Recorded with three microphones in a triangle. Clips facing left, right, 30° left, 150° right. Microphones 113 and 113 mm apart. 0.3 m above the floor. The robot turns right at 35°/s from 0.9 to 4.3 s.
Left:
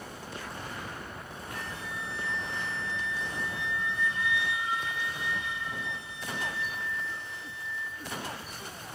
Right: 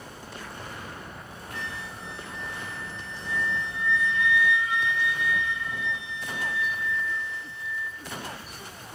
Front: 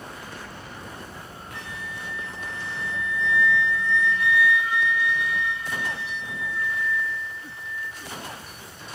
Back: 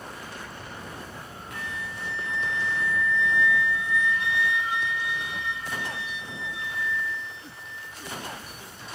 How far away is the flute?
About 5 m.